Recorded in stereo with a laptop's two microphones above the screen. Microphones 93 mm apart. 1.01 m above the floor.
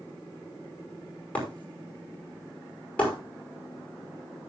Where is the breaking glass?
15° left (ahead or behind), 5 m.